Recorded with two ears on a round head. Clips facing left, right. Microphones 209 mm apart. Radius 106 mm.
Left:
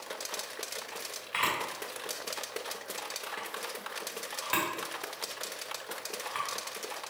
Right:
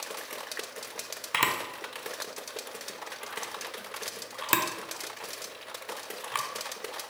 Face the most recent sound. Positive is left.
turn(degrees=-60)  # may be behind; listen again after turning